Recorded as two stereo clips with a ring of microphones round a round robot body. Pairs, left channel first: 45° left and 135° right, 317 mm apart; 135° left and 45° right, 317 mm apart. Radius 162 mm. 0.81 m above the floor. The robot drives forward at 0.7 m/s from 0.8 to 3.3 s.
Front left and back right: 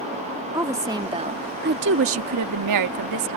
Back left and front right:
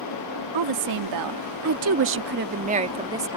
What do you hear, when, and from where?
0.5 s a woman speaking: 55° right; by 3.4 s 125° right